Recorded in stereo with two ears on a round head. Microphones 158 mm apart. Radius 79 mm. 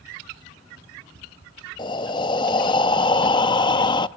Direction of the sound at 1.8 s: 25° left (ahead or behind).